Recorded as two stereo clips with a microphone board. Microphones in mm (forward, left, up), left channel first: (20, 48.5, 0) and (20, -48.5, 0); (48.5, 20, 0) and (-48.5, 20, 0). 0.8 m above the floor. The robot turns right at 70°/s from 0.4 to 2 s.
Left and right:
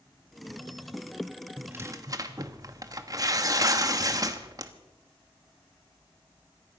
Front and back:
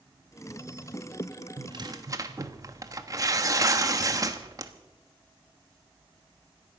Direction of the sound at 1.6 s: 165° right.